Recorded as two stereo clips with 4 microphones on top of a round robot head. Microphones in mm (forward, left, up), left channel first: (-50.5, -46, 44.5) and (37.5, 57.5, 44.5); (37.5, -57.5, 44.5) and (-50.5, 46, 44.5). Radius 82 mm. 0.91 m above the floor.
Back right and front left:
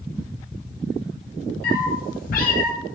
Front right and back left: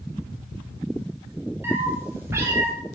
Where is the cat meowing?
155° right, 3.5 m; by 2.7 s 160° right, 2.5 m.